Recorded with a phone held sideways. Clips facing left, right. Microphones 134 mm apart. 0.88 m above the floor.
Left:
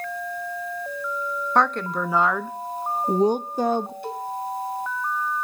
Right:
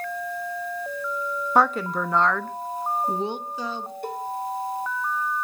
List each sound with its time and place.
1.6 s a woman speaking: 10° right (ahead or behind), 1.1 m; by 3.9 s 60° left (ahead or behind), 0.9 m
4.0 s a cowbell: 50° right (ahead or behind), 2 m